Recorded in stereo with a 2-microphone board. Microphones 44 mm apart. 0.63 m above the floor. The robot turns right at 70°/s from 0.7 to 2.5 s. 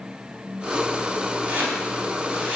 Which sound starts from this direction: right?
Chopping, at 1.5 s.